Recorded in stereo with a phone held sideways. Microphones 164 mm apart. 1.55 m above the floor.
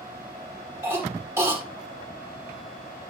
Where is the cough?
15° right (ahead or behind), 5 m.